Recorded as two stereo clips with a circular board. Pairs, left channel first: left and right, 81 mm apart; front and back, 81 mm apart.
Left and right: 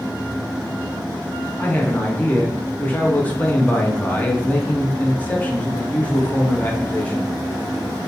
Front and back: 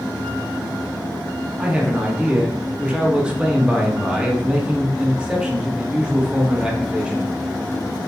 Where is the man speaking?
120° left, 0.6 m.